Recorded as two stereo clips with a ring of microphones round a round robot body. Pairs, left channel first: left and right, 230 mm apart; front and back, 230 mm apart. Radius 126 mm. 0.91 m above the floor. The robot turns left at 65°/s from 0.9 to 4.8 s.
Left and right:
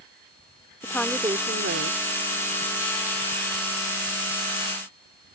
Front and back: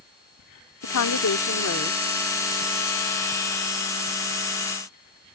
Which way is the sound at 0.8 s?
10° left.